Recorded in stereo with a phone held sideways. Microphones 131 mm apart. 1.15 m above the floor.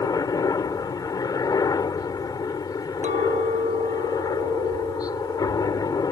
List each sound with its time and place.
0.0 s a helicopter: 25° left (ahead or behind)
3.0 s a clink: 75° right (ahead or behind)